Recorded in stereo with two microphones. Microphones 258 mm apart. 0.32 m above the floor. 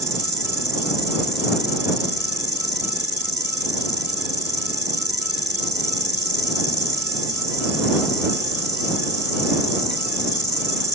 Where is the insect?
40° right (ahead or behind).